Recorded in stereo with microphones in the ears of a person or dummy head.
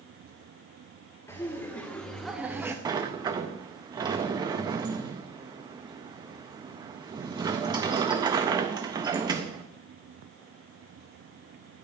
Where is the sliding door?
30° right (ahead or behind), 0.6 m.